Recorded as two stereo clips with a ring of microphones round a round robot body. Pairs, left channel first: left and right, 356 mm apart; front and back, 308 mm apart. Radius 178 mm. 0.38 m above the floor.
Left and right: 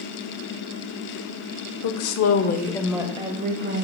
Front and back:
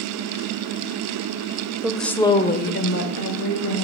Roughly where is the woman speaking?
Left.